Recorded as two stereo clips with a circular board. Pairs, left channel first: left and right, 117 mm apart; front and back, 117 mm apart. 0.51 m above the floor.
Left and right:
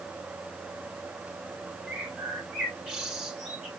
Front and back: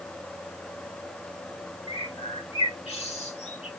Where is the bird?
5° right, 3 m.